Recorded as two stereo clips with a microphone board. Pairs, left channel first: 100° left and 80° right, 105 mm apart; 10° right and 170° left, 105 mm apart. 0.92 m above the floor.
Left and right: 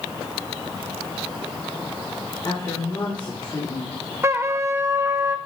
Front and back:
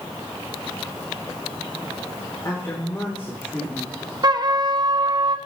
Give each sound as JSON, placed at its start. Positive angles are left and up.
{"t": 2.4, "sound": "a woman speaking", "azimuth_deg": 50, "distance_m": 2.5}
{"t": 4.2, "sound": "a trumpet", "azimuth_deg": -140, "distance_m": 0.7}